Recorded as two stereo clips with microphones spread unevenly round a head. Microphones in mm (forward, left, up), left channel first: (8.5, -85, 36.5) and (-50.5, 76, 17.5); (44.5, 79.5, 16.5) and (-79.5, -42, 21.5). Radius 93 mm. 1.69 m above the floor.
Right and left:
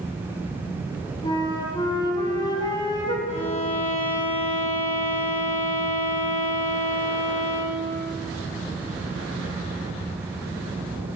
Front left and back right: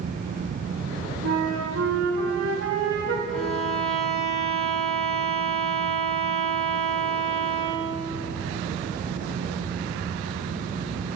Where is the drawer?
I don't hear a drawer.